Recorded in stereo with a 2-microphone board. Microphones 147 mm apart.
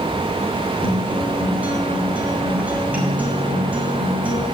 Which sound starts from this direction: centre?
A guitar, at 0.8 s.